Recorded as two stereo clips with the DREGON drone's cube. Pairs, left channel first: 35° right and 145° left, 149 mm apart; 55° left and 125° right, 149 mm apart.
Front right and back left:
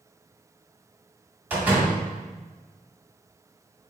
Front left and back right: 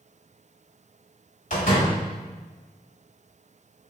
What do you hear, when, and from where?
1.5 s a door slam: 70° left, 1.8 m